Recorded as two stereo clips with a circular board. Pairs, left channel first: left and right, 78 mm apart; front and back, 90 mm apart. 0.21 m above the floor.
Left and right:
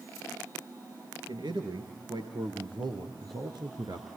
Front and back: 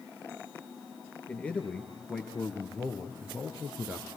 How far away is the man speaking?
About 4 m.